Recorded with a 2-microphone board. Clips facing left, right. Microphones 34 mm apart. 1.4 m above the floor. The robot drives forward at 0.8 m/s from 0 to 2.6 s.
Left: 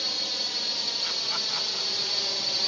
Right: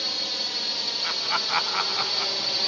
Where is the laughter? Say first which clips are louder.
Right 3 dB; 30° right (ahead or behind); by 2.5 s 45° right (ahead or behind).